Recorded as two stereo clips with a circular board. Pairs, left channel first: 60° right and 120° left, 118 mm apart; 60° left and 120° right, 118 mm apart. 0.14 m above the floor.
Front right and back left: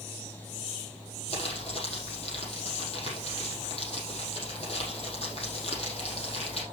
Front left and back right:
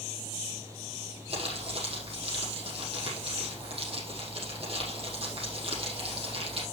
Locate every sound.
1.3 s crumpling: 90° right, 5.5 m